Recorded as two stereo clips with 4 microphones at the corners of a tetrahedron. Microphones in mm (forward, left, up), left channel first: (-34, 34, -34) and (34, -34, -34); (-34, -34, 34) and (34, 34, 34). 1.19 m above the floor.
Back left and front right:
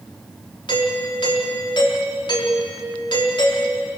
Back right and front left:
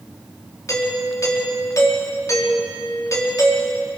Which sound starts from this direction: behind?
A doorbell, at 0.7 s.